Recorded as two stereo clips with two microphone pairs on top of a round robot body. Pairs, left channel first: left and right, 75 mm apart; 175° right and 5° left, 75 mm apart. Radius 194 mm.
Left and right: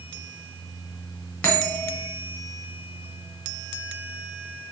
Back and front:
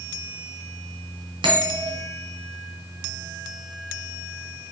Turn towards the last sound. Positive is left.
turn(degrees=10)